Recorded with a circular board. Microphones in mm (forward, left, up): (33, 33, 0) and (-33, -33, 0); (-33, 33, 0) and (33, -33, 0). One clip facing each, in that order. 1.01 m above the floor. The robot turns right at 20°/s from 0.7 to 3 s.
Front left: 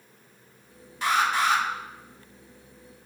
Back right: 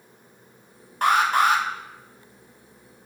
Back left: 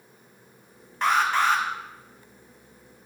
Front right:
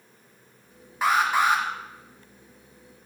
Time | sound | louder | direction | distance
1.0 | an alarm | back right 4 dB, even | 130° right | 1.3 m